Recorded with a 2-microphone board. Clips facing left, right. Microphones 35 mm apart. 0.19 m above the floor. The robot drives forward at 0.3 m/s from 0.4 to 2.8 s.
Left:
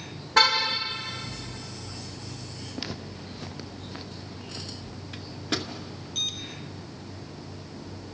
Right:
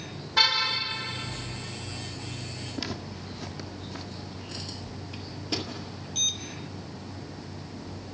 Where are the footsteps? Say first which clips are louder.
Right 1 dB; 5° left (ahead or behind), 1.7 m; by 5.0 s 25° left (ahead or behind), 2.5 m.